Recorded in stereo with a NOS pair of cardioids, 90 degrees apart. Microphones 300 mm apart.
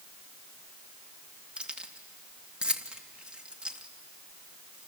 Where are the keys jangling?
5° right, 2.0 m.